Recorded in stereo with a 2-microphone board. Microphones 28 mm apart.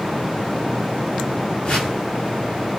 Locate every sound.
1.6 s a whoosh: 35° left (ahead or behind), 2.0 m